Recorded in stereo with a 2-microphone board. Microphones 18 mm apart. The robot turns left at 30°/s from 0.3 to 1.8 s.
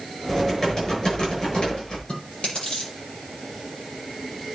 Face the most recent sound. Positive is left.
turn(degrees=85)